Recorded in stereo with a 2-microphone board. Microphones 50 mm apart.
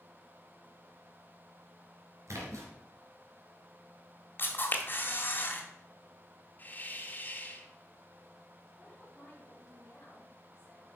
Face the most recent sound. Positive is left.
turn(degrees=20)  # may be behind; listen again after turning